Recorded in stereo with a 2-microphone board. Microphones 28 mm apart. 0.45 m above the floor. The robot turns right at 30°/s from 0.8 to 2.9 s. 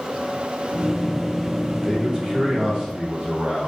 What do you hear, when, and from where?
1.8 s a man speaking: 140° right, 1.2 m; by 3.7 s 110° right, 1.2 m